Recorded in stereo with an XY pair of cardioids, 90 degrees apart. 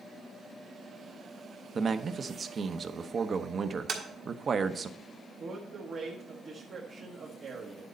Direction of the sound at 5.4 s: 60° right.